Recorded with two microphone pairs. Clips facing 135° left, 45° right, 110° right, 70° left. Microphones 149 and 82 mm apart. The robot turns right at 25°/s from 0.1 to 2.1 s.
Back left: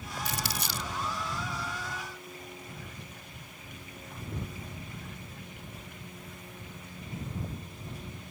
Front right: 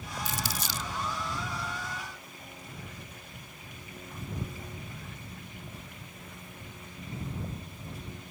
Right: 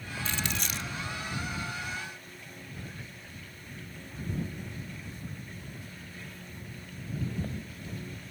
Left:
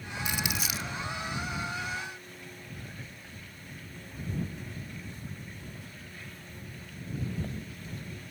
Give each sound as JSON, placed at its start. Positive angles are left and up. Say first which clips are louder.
{"t": 0.2, "sound": "crumpling", "louder": "even, left 1 dB", "azimuth_deg": 140}